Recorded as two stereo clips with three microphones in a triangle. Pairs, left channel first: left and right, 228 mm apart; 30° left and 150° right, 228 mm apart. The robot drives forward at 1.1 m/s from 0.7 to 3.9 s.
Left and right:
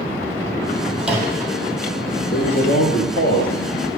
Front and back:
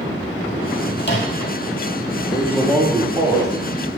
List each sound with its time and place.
1.0 s a microwave: 5° right, 2.5 m
2.3 s a man speaking: 100° left, 2.0 m; by 3.9 s 140° left, 3 m